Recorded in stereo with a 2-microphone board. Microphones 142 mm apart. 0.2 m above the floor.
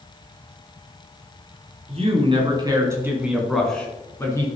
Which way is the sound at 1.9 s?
45° right (ahead or behind).